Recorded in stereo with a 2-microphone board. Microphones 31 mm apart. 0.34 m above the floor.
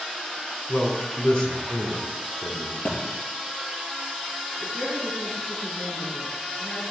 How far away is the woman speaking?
About 4 m.